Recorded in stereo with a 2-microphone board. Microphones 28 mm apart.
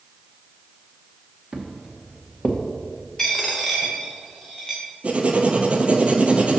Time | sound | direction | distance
1.5 | footsteps | 25° right (ahead or behind) | 1.5 m
3.2 | a dropped coin | 10° left (ahead or behind) | 1.6 m
5.0 | writing | 55° right (ahead or behind) | 0.7 m